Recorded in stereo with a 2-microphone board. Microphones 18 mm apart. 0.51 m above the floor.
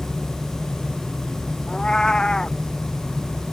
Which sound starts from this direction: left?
A cat meowing, at 1.7 s.